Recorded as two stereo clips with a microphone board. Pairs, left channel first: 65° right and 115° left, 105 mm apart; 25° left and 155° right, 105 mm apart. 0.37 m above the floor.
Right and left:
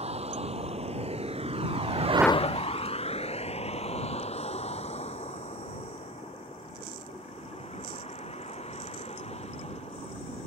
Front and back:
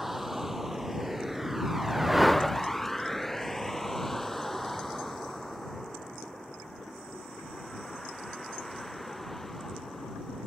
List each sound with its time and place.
0.0 s a vehicle: 115° left; by 10.5 s 65° right